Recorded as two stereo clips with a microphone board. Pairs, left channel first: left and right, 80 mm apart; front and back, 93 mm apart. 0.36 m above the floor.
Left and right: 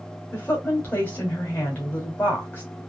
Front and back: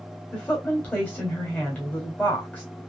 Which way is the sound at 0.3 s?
50° left.